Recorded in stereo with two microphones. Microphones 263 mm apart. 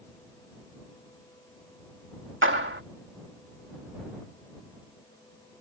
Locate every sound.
2.4 s a clap: 50° right (ahead or behind)